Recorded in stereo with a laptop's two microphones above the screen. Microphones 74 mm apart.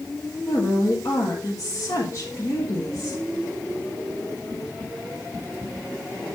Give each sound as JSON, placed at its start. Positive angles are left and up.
{"t": 0.5, "sound": "a woman speaking", "side_deg": 45, "distance_m": 1.6}